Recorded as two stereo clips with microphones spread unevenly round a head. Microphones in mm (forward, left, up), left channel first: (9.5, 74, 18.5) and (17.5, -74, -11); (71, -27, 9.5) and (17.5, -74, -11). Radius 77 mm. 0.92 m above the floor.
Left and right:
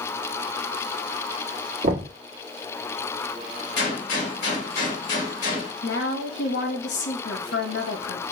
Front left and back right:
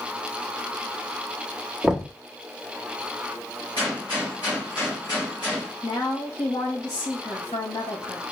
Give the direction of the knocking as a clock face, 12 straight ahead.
2 o'clock.